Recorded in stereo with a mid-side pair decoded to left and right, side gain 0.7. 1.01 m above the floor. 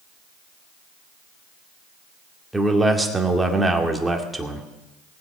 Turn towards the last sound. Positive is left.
turn(degrees=-10)